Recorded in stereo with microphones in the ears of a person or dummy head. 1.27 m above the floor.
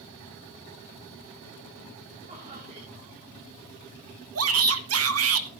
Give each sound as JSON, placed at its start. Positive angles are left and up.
{"t": 2.3, "sound": "laughter", "side_deg": -40, "distance_m": 3.5}
{"t": 4.3, "sound": "a shout", "side_deg": -80, "distance_m": 1.7}